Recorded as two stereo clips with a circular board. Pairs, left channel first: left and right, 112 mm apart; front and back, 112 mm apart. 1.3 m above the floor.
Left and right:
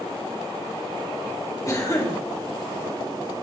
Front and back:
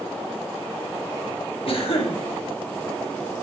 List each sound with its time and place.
1.7 s a cough: 30° left, 1.7 m